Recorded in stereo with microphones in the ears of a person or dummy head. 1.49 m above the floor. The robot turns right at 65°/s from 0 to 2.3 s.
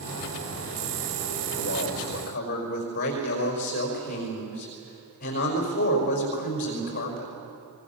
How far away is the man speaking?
About 5 m.